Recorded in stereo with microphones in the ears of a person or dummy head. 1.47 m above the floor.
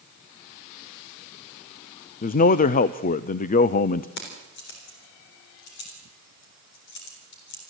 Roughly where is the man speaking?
Left.